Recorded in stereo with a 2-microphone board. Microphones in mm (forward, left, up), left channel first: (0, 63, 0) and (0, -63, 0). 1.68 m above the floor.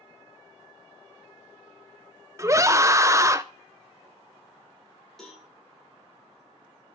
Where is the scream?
25° right (ahead or behind), 0.6 m.